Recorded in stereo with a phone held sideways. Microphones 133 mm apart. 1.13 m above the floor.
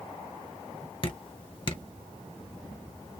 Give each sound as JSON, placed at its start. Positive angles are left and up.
{"t": 1.0, "sound": "dripping", "side_deg": 40, "distance_m": 0.9}